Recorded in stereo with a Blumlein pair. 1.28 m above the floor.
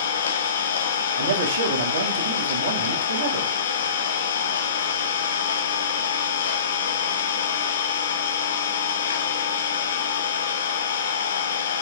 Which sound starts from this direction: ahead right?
A man speaking, at 1.2 s.